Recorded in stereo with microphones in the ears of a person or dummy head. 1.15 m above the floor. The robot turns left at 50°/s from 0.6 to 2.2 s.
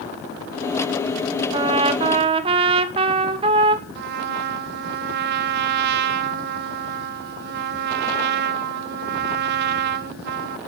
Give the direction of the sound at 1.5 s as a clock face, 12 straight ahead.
2 o'clock.